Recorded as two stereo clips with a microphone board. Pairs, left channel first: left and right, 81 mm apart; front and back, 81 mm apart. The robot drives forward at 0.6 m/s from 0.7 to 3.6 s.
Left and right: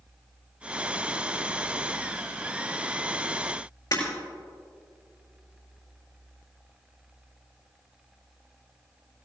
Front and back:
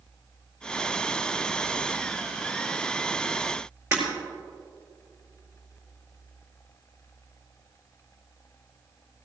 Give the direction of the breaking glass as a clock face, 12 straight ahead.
8 o'clock.